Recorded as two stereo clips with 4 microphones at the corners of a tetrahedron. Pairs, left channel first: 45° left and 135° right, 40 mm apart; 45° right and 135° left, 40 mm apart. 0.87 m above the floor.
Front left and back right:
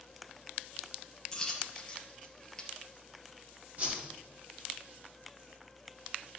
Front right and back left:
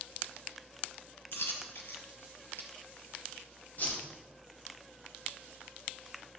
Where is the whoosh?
85° right, 2.5 m.